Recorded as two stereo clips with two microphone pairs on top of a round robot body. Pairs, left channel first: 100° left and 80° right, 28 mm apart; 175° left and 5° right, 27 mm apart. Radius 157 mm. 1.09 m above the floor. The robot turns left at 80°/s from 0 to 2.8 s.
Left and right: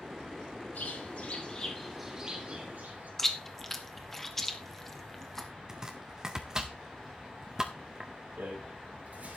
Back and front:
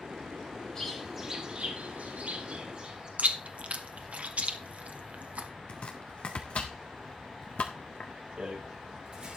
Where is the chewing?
25° left, 1.4 m.